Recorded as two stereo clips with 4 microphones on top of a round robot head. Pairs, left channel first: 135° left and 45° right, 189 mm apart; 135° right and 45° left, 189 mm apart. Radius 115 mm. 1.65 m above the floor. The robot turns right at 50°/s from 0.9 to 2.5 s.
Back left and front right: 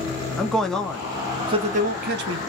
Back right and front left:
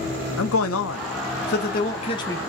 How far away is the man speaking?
About 0.8 m.